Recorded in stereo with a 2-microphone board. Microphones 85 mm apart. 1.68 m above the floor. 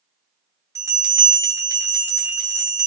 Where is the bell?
35° right (ahead or behind), 0.9 m.